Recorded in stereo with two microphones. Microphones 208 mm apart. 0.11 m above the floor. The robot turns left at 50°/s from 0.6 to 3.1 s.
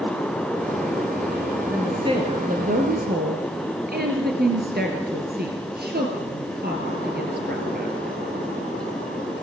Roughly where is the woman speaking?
Ahead.